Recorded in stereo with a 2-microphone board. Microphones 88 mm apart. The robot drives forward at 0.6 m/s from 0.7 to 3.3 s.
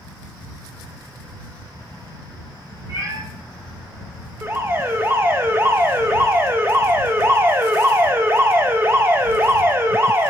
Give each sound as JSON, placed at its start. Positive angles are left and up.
{"t": 2.9, "sound": "a cat meowing", "side_deg": -50, "distance_m": 3.0}
{"t": 4.4, "sound": "an alarm", "side_deg": -25, "distance_m": 0.6}